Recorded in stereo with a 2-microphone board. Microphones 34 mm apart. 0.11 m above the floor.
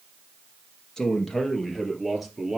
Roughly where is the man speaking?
Centre.